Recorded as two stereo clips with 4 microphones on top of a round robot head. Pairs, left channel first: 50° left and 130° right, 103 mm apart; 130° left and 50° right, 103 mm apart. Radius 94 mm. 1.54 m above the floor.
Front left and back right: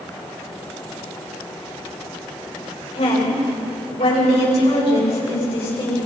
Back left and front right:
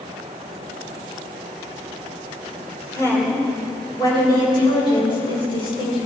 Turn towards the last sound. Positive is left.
turn(degrees=95)